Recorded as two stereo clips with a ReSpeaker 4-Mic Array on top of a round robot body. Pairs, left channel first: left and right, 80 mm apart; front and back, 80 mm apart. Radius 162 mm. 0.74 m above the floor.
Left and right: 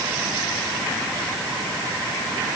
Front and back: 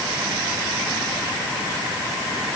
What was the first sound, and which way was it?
Only background noise.